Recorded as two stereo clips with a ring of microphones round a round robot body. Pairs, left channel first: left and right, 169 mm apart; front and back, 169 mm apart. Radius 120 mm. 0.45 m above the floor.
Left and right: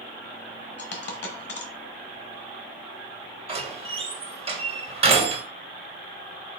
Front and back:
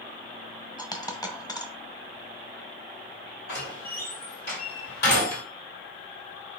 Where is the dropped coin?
70° left, 1.2 m.